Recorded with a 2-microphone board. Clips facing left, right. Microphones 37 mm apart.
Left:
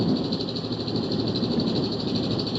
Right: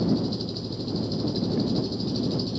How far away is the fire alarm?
No fire alarm in this recording.